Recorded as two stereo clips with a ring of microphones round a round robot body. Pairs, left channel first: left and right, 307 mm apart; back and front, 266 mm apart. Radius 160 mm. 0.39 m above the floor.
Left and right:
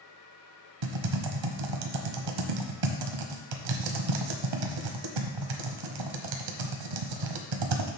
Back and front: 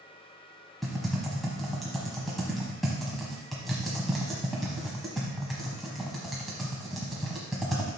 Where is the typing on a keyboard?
90° right, 1.1 m.